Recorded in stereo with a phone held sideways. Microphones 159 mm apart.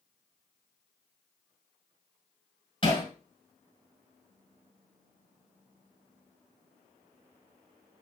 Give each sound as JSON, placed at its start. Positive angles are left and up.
{"t": 2.8, "sound": "hammering", "side_deg": 35, "distance_m": 3.5}